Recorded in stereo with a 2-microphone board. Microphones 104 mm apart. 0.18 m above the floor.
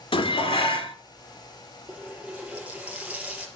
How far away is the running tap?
About 3 m.